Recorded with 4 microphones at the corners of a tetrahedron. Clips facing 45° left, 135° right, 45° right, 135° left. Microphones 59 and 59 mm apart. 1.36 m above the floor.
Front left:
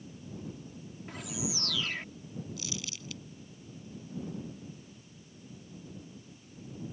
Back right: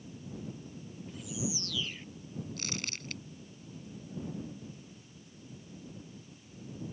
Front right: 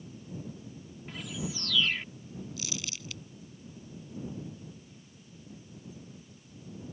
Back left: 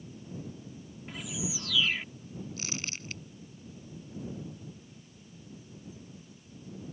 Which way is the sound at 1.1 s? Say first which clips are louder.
Even, even; 50° left.